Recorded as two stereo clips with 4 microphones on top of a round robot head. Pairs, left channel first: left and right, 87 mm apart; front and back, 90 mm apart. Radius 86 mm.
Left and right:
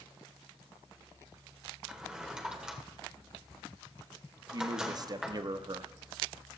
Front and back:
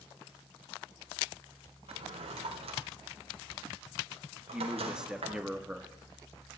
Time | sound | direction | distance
1.9 | a drawer | 170° right | 1.5 m
4.5 | a man speaking | 105° right | 0.8 m